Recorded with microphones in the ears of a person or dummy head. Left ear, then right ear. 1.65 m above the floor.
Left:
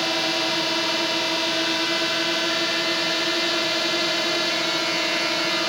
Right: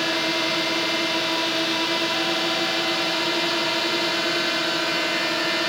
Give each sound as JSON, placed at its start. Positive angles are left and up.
{"t": 0.0, "sound": "a drone", "side_deg": 5}